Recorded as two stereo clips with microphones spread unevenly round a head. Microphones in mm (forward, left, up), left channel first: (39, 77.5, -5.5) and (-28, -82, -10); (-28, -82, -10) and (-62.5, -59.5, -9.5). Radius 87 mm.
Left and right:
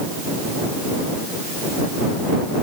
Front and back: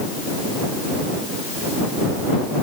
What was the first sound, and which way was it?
Only background noise.